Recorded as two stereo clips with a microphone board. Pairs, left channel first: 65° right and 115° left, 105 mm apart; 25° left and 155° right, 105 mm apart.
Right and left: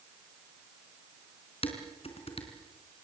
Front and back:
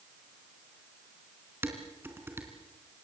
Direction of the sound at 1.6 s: 90° right.